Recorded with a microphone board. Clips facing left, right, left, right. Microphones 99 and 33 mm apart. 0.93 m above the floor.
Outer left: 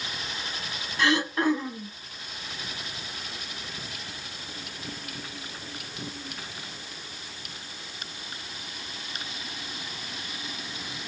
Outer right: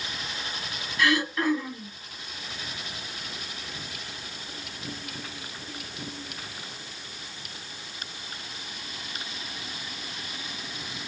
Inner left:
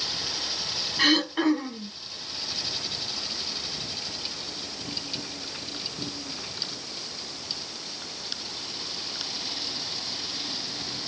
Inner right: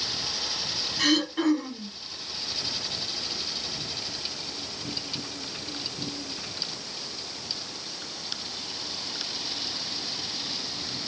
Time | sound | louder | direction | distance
1.0 | throat clearing | outer left 1 dB, inner left 2 dB | 25° left (ahead or behind) | 0.5 m